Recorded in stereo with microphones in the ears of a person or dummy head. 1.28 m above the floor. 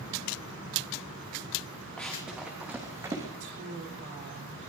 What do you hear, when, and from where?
2.0 s running footsteps: centre (ahead or behind), 3 m; by 3.3 s 20° right (ahead or behind), 3 m
3.4 s a woman speaking: 50° right (ahead or behind), 2.5 m